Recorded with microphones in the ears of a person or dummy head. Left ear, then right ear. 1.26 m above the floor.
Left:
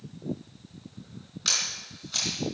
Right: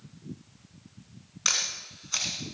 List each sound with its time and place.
1.4 s a camera shutter: 35° right (ahead or behind), 3 m